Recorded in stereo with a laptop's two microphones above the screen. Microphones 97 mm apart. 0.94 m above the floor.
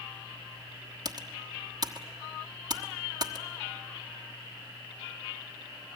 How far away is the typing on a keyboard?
About 1.3 m.